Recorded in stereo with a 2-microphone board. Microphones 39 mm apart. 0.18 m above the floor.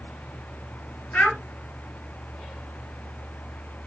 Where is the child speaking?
50° left (ahead or behind), 1.9 m.